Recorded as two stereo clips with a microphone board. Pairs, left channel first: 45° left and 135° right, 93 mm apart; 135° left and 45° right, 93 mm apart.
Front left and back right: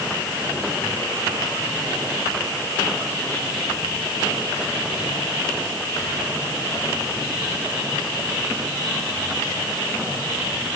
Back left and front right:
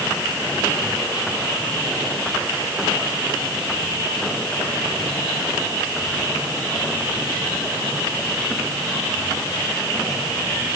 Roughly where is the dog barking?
I don't hear a dog barking.